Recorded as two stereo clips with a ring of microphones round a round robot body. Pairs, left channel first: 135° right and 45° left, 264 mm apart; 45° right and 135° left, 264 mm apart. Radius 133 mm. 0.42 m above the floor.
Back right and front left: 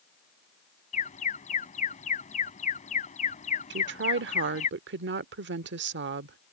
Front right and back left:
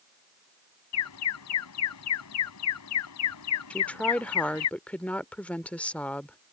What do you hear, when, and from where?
0.9 s an alarm: 70° right
3.7 s a woman speaking: 40° left